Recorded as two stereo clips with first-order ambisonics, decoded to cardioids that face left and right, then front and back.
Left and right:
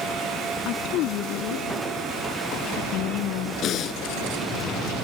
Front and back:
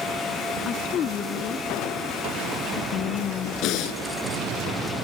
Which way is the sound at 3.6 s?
40° left.